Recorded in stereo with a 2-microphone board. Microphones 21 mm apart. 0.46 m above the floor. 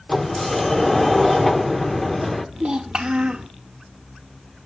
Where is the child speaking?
50° right (ahead or behind), 0.6 m.